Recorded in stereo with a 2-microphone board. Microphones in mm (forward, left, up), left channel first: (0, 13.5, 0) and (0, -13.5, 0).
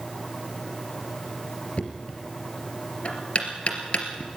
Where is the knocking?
55° left (ahead or behind), 3 m.